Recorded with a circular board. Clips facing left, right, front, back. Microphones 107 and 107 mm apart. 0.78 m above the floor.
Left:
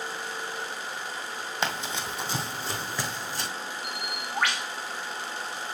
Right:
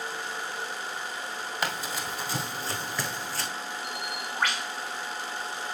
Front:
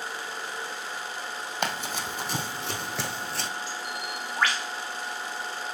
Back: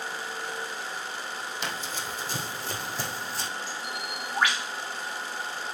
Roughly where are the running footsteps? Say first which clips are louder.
Left 2 dB, front 7 dB; ahead left.